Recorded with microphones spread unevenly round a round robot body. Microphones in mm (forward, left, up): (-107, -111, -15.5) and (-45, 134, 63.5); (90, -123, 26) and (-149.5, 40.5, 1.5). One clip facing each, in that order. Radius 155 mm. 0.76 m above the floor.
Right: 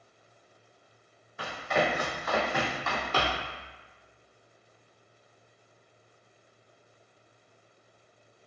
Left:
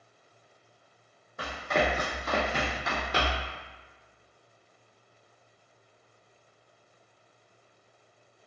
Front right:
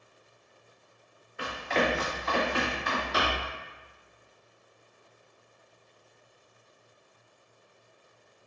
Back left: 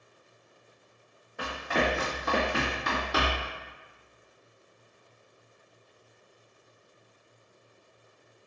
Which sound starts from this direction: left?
Running footsteps, at 1.4 s.